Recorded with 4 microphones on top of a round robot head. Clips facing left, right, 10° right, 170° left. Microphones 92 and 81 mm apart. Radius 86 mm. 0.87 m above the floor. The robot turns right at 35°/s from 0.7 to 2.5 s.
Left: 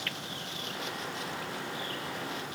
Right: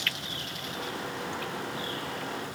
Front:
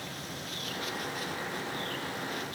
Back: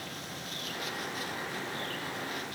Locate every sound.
Only background noise.